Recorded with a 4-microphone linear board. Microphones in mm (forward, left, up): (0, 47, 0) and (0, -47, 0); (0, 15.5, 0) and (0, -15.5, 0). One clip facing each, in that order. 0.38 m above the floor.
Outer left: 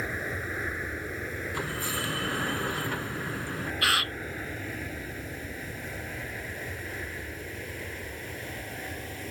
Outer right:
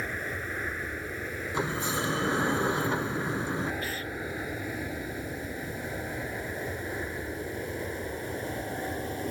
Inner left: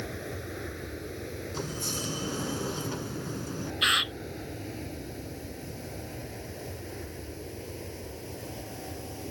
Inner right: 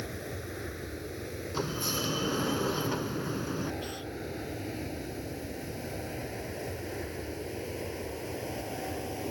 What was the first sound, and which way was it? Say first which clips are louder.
An aircraft: outer left 1 dB, inner left 1 dB; 5° left (ahead or behind).